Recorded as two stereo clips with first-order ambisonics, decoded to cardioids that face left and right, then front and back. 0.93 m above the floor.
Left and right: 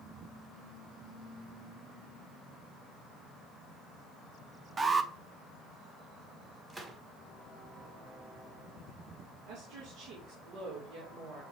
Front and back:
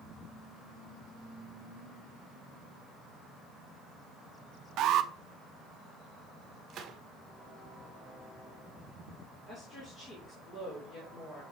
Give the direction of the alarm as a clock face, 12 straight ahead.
5 o'clock.